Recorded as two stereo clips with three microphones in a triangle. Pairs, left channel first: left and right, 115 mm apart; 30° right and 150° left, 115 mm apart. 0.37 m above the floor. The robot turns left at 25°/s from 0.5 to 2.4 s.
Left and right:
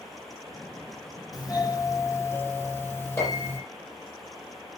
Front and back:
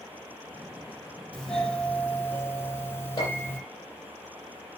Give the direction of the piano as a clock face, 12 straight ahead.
11 o'clock.